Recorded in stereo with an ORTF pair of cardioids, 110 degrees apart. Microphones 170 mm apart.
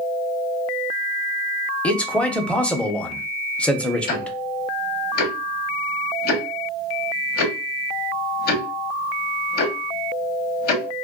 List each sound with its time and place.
1.8 s a man speaking: 5° left, 0.7 m
4.1 s ticking: 65° left, 0.9 m